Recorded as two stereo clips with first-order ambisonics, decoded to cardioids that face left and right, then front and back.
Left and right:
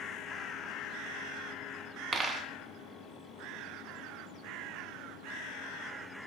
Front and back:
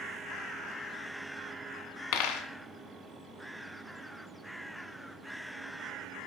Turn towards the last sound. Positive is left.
turn(degrees=-15)